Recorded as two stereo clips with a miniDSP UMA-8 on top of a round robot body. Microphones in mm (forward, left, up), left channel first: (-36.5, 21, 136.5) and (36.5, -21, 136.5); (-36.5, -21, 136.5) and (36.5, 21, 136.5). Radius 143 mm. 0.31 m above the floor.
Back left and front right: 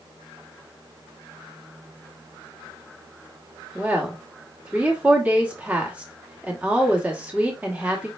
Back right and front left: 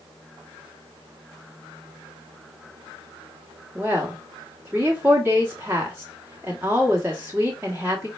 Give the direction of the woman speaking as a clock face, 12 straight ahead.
11 o'clock.